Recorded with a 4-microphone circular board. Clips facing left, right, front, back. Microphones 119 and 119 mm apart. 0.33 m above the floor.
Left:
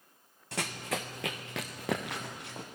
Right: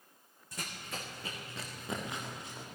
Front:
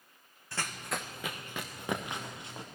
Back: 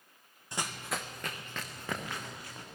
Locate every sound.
0.5 s running footsteps: 110° left, 1.4 m; by 2.6 s 65° left, 4 m